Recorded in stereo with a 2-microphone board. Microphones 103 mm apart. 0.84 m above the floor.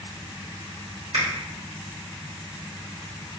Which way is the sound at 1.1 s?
75° right (ahead or behind).